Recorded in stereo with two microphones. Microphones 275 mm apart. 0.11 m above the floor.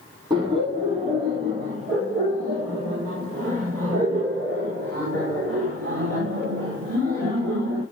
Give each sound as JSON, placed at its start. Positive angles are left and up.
{"t": 0.3, "sound": "laughter", "side_deg": -15, "distance_m": 4.0}